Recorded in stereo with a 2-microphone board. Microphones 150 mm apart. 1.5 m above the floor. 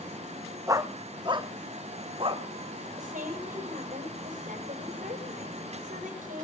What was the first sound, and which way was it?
A dog barking, 25° right (ahead or behind).